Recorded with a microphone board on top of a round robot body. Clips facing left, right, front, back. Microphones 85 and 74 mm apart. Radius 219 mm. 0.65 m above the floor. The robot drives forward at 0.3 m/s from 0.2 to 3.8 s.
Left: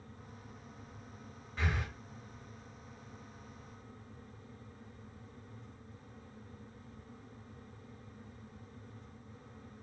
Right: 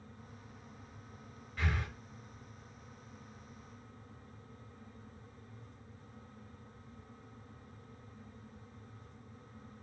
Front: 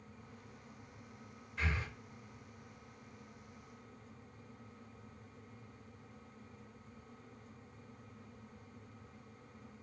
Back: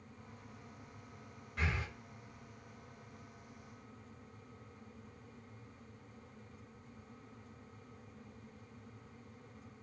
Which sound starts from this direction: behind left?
Breathing, at 1.6 s.